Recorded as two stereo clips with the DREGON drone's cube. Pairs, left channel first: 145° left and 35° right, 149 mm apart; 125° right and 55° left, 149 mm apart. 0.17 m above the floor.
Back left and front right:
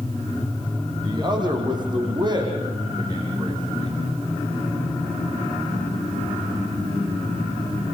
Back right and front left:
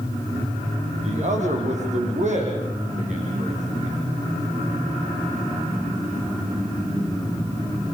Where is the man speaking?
25° left, 5.5 m.